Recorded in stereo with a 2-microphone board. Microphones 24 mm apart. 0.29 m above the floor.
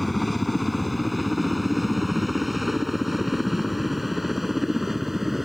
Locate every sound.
0.0 s a helicopter: centre (ahead or behind); by 5.5 s 10° right (ahead or behind)